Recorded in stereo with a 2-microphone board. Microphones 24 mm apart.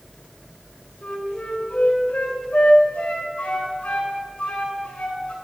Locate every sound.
1.0 s a flute: 65° left (ahead or behind), 2.5 m